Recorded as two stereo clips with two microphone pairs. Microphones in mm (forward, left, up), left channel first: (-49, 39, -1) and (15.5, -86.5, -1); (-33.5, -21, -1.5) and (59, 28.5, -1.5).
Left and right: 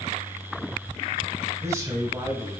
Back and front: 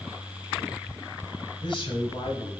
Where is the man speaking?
125° right, 2.5 m.